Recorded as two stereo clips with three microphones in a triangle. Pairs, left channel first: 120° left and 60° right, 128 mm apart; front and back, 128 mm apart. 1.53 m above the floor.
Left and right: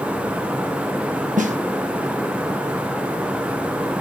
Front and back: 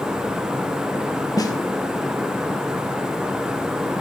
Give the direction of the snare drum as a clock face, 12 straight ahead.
2 o'clock.